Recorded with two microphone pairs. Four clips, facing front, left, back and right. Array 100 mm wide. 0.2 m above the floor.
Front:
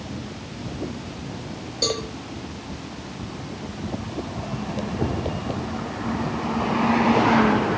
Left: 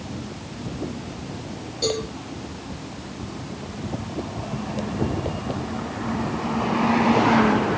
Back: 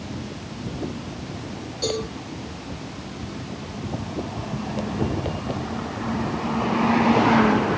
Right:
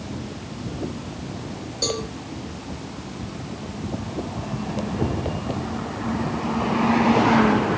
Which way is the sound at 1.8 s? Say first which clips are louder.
Left 3 dB, back 1 dB; 25° right.